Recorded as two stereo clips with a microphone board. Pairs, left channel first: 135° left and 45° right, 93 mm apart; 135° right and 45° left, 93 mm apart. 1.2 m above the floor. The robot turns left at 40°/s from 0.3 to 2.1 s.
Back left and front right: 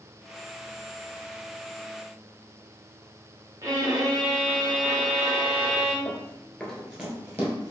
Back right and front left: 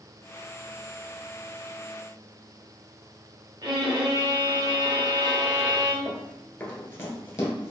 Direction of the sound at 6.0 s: 155° left.